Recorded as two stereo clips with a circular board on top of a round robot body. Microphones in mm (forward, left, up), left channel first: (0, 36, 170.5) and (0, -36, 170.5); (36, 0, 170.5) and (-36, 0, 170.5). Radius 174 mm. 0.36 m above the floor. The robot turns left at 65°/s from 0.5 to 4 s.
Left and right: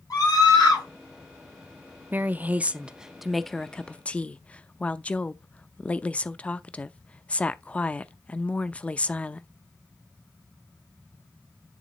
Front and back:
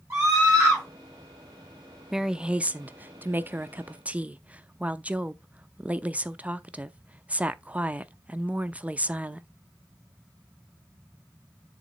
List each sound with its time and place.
0.1 s a scream: 125° left, 6 m; by 0.8 s 100° left, 6 m
2.1 s a woman speaking: 100° right, 0.8 m; by 9.5 s 135° left, 0.8 m